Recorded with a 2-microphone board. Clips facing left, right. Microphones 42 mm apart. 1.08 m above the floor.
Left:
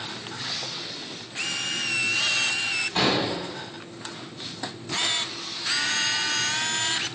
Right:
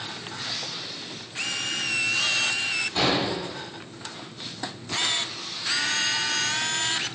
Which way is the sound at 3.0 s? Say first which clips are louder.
Left 1 dB; 40° left (ahead or behind).